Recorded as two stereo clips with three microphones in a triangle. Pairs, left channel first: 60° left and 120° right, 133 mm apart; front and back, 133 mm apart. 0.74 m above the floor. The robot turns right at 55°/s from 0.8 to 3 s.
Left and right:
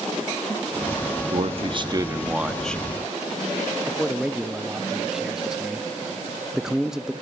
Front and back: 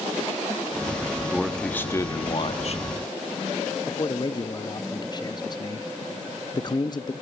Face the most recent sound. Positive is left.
turn(degrees=-35)